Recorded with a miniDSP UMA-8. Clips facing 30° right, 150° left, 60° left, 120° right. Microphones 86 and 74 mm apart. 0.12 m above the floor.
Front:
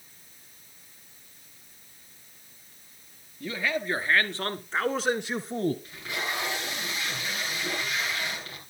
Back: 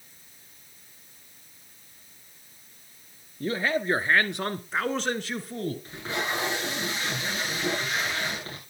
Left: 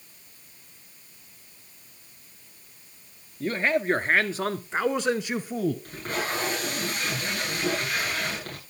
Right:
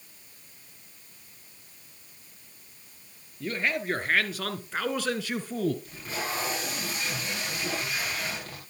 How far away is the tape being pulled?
About 9.5 m.